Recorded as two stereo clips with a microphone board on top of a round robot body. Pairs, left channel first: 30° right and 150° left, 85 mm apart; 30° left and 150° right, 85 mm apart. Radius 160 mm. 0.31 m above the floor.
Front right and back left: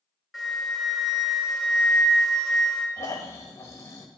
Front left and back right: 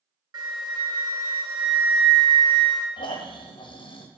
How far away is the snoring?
About 1.0 m.